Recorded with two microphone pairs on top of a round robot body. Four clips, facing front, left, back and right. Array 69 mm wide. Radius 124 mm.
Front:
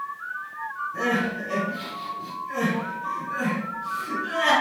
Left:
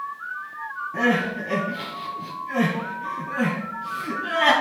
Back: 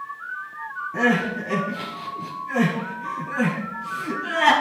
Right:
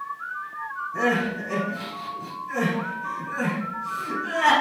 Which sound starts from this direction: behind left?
Crying, at 0.9 s.